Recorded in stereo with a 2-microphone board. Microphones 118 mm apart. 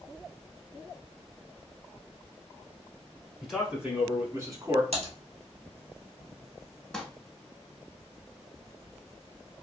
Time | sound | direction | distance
3.4 | a man speaking | centre (ahead or behind) | 1.1 m
4.9 | typing on a keyboard | 70° right (ahead or behind) | 1.1 m
6.9 | crumpling | 5° left (ahead or behind) | 0.8 m